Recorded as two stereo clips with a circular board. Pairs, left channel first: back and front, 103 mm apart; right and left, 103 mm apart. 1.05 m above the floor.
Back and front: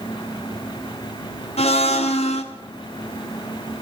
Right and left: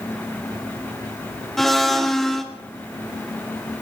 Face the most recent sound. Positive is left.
turn(degrees=-175)